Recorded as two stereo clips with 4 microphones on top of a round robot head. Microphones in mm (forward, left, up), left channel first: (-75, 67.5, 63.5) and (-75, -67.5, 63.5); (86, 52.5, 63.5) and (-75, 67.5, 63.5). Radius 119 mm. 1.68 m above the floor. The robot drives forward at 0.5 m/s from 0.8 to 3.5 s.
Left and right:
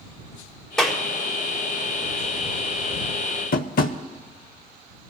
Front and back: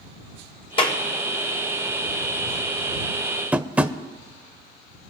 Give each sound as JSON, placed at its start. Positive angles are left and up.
{"t": 0.8, "sound": "a clap", "azimuth_deg": 5, "distance_m": 0.6}
{"t": 3.5, "sound": "tapping", "azimuth_deg": 95, "distance_m": 0.7}